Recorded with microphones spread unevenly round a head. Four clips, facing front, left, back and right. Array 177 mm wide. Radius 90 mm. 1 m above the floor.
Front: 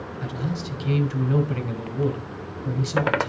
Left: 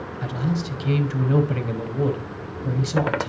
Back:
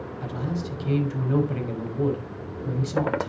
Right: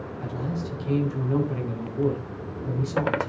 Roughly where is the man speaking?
Left.